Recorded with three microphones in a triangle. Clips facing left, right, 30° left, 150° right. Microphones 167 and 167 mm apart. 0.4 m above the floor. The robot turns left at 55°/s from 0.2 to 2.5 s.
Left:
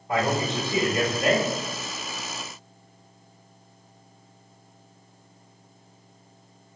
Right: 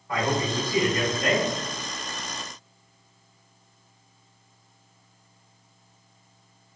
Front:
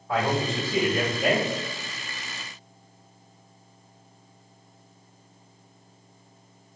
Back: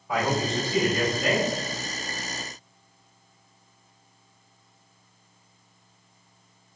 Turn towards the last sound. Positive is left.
turn(degrees=10)